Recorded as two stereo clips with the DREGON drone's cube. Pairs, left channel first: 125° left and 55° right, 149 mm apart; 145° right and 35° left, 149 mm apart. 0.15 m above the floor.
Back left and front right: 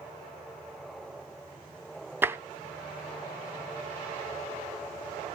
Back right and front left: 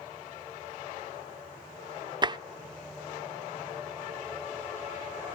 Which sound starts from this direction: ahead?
Tapping, at 2.2 s.